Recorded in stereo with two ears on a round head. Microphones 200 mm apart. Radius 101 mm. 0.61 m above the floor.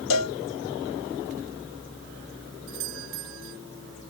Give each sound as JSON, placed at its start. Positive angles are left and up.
{"t": 0.1, "sound": "a cowbell", "side_deg": 80}
{"t": 2.7, "sound": "a doorbell", "side_deg": -70}